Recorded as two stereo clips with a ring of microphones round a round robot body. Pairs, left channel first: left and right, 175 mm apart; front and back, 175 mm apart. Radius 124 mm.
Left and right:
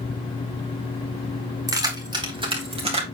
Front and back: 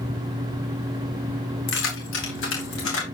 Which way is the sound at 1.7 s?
20° right.